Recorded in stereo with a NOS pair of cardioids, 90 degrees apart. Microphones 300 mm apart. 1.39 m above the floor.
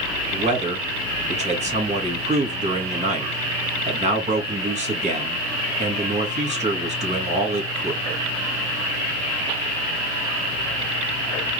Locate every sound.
0.3 s a man speaking: 20° right, 2.5 m